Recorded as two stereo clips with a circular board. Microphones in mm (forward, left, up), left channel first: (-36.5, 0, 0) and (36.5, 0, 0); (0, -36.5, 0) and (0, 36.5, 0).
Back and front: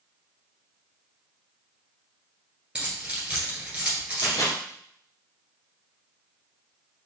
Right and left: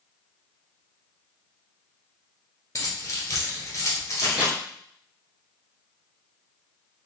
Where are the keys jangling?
70° right, 1.4 m.